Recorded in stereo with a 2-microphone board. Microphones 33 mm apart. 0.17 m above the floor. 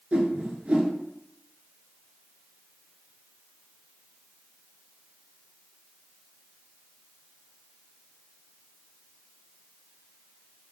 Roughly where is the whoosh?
Right.